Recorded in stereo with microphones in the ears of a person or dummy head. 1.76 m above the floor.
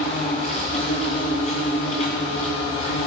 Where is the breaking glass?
I don't hear breaking glass.